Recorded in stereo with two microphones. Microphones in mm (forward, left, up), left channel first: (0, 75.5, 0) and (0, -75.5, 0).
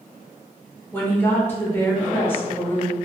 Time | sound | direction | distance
0.9 | a woman speaking | 15° left (ahead or behind) | 0.8 m